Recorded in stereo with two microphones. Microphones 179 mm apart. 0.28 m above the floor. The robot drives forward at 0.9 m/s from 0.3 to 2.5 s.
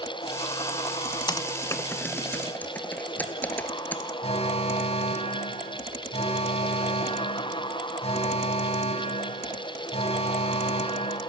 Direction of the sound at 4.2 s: 35° left (ahead or behind).